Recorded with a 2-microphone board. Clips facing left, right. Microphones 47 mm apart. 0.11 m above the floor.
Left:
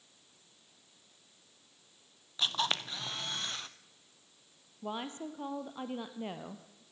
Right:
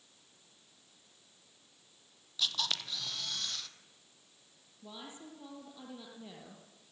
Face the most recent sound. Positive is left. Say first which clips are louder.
# left 9 dB
turn(degrees=65)  # may be behind; listen again after turning